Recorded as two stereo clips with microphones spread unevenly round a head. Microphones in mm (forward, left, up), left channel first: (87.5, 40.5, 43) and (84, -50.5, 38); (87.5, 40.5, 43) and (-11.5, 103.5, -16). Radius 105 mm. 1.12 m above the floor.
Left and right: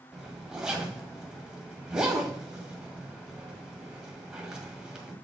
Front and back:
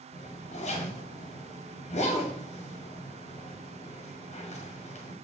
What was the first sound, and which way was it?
A zipper, 5° right.